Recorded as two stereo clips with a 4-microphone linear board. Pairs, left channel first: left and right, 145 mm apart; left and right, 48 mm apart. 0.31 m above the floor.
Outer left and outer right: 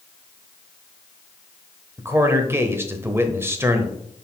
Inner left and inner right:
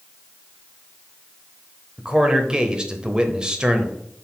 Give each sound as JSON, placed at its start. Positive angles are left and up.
{"t": 2.0, "sound": "a man speaking", "side_deg": -15, "distance_m": 0.9}